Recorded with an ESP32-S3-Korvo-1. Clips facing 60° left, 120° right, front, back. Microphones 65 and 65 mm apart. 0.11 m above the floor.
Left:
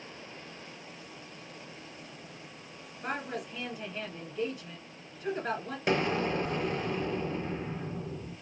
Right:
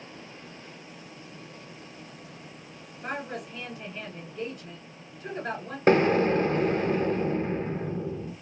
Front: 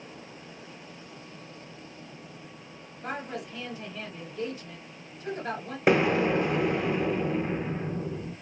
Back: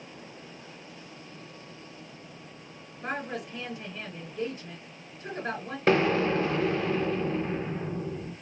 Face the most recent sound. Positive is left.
turn(degrees=-75)